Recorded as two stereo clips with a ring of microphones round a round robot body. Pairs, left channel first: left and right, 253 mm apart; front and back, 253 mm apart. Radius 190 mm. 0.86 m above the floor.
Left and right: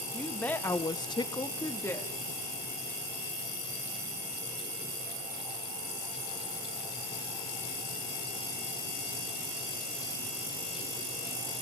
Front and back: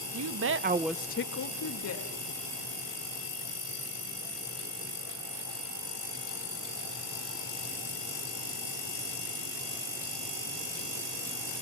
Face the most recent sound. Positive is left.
turn(degrees=10)